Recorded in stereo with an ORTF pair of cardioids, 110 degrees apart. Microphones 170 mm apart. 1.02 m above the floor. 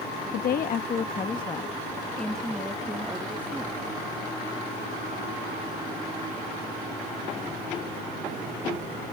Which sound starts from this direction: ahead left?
A woman speaking, at 0.3 s.